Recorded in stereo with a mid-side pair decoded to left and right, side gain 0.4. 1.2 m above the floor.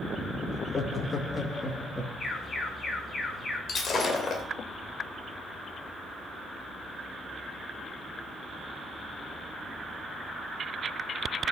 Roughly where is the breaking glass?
Ahead left.